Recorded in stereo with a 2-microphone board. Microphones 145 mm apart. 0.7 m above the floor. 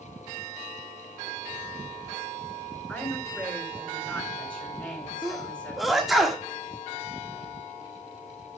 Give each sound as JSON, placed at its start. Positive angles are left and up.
{"t": 2.9, "sound": "a woman speaking", "side_deg": 5, "distance_m": 6.5}
{"t": 5.2, "sound": "a sneeze", "side_deg": 0, "distance_m": 1.5}